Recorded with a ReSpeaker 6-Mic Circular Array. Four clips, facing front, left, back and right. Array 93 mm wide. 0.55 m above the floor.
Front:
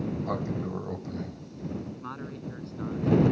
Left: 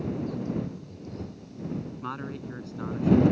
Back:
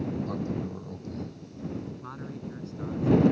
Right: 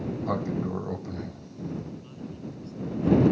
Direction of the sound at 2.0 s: 75° left.